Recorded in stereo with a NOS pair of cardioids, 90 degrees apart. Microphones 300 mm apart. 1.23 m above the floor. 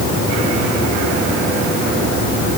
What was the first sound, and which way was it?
Only background noise.